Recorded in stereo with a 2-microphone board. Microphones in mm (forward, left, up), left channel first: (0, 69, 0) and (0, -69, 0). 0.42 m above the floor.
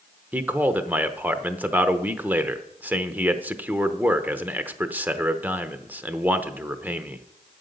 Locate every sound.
0.3 s a man speaking: 15° right (ahead or behind), 0.8 m